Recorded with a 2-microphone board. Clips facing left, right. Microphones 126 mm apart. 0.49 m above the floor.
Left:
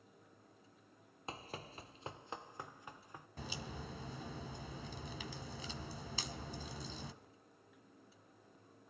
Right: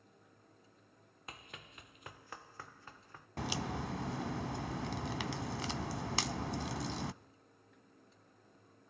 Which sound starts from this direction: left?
Running footsteps, at 1.3 s.